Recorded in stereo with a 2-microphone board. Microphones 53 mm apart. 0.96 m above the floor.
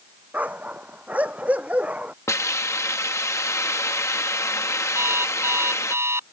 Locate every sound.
0.3 s a dog barking: 30° right (ahead or behind); by 2.1 s 25° right (ahead or behind)
2.3 s a hiss: 70° left (ahead or behind)
5.0 s an alarm clock: 55° right (ahead or behind)